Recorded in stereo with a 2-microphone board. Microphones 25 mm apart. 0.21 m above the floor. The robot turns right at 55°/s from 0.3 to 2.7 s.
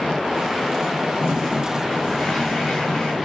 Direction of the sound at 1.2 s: 20° right.